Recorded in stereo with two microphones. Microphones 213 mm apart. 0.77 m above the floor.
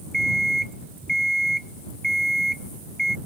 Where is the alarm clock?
55° left (ahead or behind).